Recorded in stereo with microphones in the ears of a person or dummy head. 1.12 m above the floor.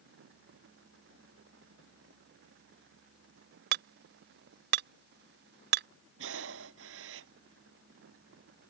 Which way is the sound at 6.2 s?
75° right (ahead or behind).